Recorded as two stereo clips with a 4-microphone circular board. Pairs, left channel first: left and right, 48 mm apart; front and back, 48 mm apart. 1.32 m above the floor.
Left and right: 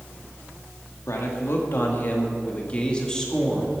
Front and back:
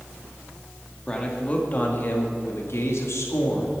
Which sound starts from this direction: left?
A man speaking, at 1.1 s.